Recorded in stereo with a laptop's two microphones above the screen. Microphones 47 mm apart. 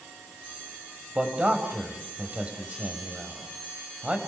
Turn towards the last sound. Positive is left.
turn(degrees=-30)  # may be behind; listen again after turning